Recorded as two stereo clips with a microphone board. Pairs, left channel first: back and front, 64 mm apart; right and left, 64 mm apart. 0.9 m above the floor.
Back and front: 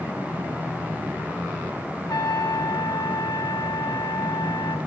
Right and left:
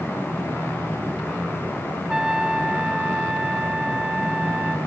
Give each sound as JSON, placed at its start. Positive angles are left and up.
{"t": 2.1, "sound": "a trumpet", "azimuth_deg": 165, "distance_m": 0.7}